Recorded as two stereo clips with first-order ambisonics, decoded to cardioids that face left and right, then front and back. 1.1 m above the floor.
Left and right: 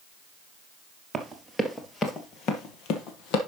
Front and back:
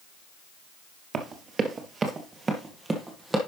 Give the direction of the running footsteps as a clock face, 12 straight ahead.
5 o'clock.